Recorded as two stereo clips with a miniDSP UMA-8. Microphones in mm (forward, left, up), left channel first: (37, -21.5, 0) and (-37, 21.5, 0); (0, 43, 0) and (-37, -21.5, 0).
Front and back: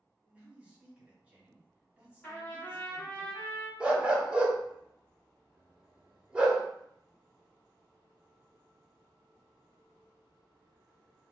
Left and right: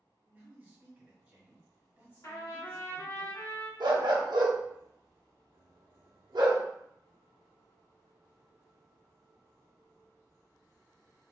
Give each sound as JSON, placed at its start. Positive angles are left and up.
{"t": 0.2, "sound": "a man speaking", "azimuth_deg": -155, "distance_m": 1.2}
{"t": 2.2, "sound": "a trumpet", "azimuth_deg": 35, "distance_m": 2.0}
{"t": 3.8, "sound": "a dog barking", "azimuth_deg": -135, "distance_m": 0.6}